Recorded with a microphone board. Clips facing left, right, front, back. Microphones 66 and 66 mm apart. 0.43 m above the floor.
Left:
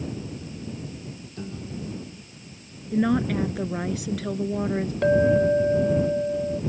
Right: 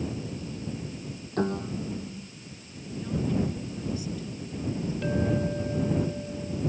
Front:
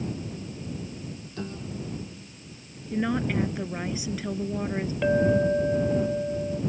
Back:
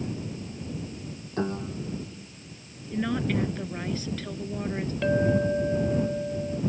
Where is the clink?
80° left.